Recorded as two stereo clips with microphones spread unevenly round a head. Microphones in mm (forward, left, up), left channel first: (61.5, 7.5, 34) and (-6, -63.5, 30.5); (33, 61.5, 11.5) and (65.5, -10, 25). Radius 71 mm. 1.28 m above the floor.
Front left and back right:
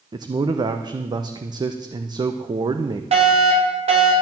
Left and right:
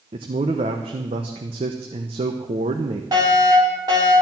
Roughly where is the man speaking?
Right.